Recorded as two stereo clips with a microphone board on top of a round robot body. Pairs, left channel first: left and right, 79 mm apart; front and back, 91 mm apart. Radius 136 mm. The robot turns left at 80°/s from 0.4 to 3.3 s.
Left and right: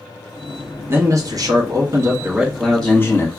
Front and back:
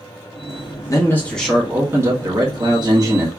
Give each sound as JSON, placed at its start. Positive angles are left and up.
{"t": 0.9, "sound": "a man speaking", "azimuth_deg": -40, "distance_m": 1.3}